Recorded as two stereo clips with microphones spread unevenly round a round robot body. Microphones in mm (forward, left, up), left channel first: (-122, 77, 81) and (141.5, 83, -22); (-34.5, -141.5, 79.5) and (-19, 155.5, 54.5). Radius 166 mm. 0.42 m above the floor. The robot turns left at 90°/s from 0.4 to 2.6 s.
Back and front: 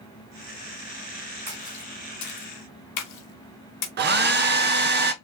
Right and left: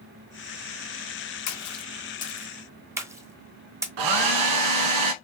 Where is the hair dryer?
60° left, 0.8 m.